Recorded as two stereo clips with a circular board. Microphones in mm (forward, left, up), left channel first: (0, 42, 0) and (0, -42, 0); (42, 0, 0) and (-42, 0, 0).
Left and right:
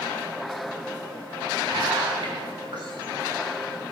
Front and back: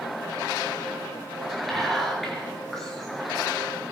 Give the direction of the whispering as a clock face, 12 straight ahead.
3 o'clock.